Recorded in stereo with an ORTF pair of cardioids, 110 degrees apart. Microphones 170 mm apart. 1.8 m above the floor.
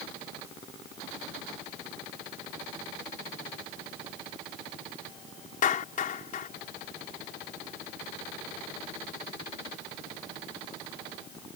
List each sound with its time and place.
5.6 s a clap: 50° left